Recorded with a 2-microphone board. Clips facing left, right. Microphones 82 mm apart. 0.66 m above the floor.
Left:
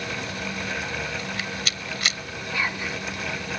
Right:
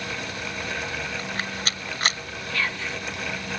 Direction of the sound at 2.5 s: 15° left (ahead or behind).